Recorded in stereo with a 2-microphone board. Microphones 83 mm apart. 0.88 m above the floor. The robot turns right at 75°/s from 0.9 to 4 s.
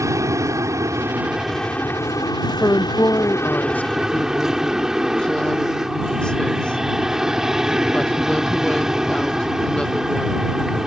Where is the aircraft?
45° right; by 10.9 s 175° right.